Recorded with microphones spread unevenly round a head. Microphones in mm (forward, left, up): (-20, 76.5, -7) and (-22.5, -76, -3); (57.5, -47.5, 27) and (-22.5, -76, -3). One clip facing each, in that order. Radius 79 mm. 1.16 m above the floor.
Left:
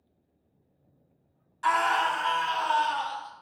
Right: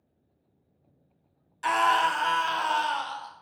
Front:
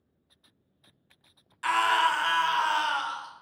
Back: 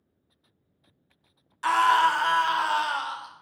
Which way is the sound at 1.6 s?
150° right.